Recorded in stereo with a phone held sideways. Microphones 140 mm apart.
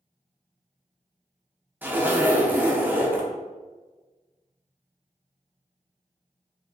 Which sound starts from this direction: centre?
A zipper, at 1.8 s.